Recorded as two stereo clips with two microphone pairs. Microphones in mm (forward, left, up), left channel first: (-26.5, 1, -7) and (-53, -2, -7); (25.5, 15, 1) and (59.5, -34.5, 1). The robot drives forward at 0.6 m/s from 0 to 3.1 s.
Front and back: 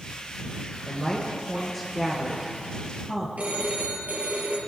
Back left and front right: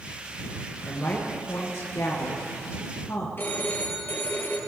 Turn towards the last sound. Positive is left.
turn(degrees=175)